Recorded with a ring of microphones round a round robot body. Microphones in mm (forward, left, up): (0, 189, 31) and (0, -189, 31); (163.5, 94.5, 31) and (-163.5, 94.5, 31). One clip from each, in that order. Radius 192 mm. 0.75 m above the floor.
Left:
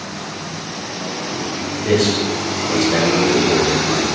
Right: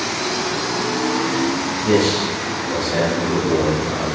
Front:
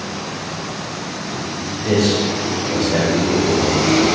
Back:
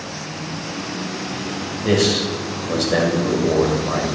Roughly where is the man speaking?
Behind left.